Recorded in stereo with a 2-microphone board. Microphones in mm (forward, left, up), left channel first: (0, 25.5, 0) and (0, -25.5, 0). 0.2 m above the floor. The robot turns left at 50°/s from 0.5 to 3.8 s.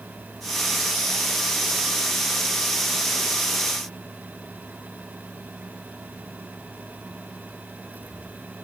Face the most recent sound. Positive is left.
No sound to turn to.